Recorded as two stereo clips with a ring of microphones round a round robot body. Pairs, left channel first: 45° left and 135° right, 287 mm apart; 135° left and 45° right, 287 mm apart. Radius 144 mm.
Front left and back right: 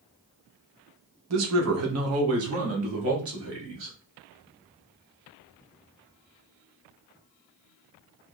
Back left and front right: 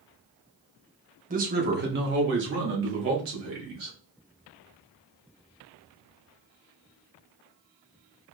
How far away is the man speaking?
About 1.0 m.